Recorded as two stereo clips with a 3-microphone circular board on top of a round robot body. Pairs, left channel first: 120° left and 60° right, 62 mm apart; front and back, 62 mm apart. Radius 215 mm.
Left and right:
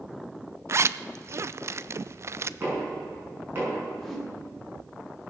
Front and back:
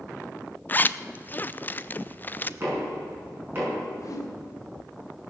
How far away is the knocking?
About 6.5 m.